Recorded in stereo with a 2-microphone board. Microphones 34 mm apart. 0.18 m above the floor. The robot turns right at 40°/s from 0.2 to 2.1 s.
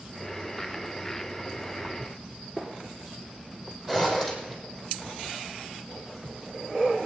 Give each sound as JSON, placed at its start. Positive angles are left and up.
{"t": 2.6, "sound": "a gunshot", "side_deg": 0, "distance_m": 2.5}
{"t": 3.9, "sound": "a zipper", "side_deg": -15, "distance_m": 4.5}